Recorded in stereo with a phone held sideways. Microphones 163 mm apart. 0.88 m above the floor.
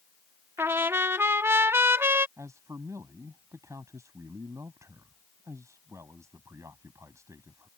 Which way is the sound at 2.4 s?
20° right (ahead or behind).